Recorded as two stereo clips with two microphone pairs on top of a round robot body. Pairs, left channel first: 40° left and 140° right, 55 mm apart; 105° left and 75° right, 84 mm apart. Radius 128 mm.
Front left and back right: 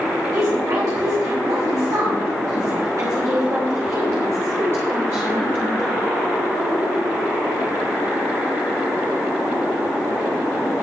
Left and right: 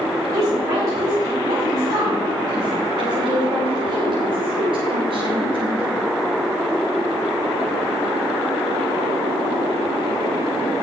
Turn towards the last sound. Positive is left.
turn(degrees=-70)